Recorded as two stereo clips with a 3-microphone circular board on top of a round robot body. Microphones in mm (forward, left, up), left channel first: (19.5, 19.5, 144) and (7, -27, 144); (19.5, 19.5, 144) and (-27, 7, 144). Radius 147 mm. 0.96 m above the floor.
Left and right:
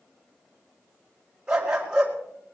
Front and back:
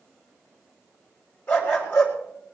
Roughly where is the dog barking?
Ahead right.